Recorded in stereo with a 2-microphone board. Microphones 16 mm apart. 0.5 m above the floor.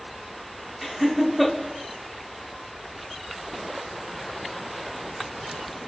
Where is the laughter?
Centre (ahead or behind), 0.9 m.